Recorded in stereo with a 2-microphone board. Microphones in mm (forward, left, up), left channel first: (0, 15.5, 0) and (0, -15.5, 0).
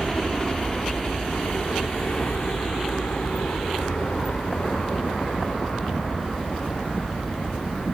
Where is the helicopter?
25° left (ahead or behind); by 7.9 s 75° left (ahead or behind).